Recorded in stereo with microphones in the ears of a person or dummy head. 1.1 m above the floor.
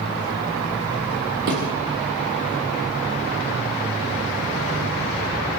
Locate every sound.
1.5 s a thud: 65° right (ahead or behind), 6 m